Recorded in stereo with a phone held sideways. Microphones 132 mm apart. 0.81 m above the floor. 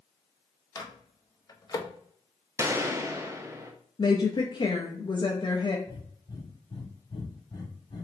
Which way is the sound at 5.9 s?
35° left (ahead or behind).